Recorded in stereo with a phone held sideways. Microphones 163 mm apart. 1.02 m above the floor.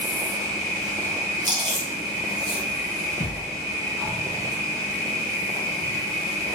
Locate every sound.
0.0 s an insect: 25° right (ahead or behind), 1.0 m
1.4 s chewing: 25° right (ahead or behind), 0.8 m
3.2 s a thud: 55° left (ahead or behind), 1.5 m